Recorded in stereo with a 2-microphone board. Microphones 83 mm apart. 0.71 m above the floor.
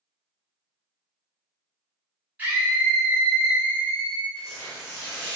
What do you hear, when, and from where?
2.4 s a scream: 20° right (ahead or behind), 1.0 m; by 4.2 s 60° left (ahead or behind), 2 m
4.3 s tearing paper: 30° left (ahead or behind), 1.7 m